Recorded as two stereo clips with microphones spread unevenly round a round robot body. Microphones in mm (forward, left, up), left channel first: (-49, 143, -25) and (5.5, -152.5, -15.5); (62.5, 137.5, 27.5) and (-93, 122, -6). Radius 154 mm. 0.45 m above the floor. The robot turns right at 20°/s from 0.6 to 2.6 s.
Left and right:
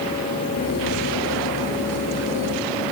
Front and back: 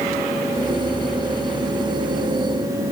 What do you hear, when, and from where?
Only background noise.